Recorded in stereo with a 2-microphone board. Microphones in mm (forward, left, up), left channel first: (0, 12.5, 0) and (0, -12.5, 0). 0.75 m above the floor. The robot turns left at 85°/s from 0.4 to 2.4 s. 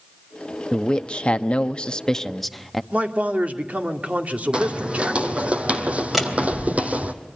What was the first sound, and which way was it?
A man speaking, 150° left.